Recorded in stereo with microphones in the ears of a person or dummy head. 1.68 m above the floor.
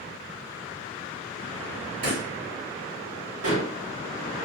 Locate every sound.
2.0 s a pop: 45° right (ahead or behind), 2 m
3.4 s dishes clattering: 60° right (ahead or behind), 1.7 m